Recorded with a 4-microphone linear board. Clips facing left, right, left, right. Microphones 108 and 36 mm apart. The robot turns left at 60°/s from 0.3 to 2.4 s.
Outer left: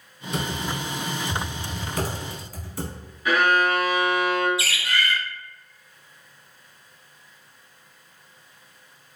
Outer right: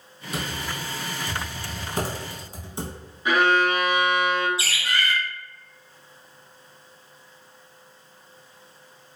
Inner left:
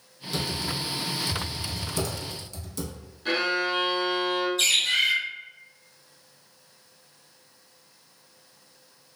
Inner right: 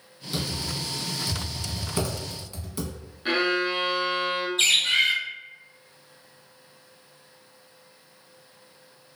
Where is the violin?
25° right (ahead or behind), 0.6 m.